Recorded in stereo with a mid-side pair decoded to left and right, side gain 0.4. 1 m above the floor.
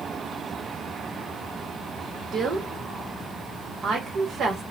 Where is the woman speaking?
65° right, 1.1 m.